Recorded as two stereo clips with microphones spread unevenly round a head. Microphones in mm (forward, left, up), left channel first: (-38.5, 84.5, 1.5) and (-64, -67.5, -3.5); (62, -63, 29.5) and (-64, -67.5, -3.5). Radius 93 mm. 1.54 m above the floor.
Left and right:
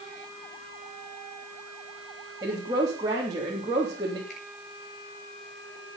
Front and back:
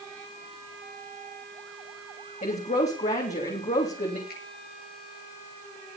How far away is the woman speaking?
About 3.5 m.